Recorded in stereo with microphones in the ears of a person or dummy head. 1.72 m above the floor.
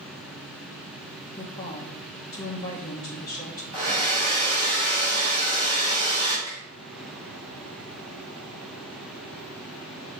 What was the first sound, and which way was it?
A woman speaking, 25° left (ahead or behind).